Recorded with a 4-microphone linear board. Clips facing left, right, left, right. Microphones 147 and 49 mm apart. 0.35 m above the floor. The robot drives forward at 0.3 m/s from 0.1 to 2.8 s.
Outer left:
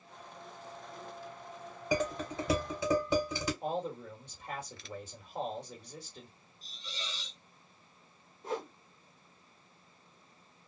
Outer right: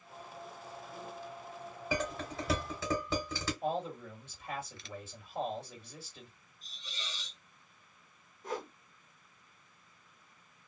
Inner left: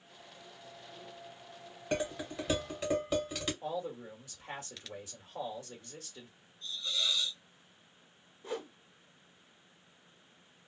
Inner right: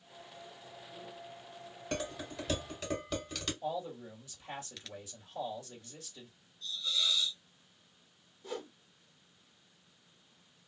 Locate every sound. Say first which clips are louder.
1.9 s dishes clattering: outer left 4 dB, inner left 4 dB; 15° left (ahead or behind), 1.5 m
3.6 s a man speaking: even, even; 35° left (ahead or behind), 1.6 m
6.6 s a hiss: outer left 3 dB, inner right 1 dB; 30° left (ahead or behind), 1.3 m
8.4 s a whoosh: outer left 2 dB, inner left 2 dB; 30° left (ahead or behind), 0.8 m